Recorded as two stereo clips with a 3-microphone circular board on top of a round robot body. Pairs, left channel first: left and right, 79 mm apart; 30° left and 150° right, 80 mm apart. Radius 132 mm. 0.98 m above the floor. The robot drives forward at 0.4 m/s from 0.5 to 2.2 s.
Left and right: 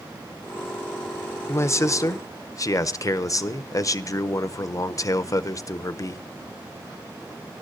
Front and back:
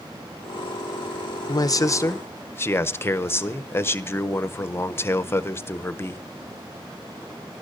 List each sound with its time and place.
1.5 s a man speaking: 45° left, 0.7 m; by 6.2 s 75° left, 0.6 m